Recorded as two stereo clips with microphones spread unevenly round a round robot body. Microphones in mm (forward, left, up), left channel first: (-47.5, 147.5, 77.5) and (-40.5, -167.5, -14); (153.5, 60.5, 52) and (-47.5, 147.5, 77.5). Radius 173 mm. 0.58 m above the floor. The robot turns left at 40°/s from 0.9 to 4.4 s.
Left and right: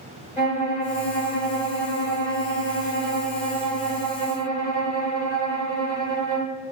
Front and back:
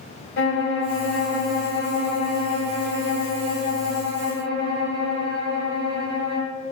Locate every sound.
0.4 s a violin: 15° left, 0.7 m; by 6.5 s 125° right, 0.7 m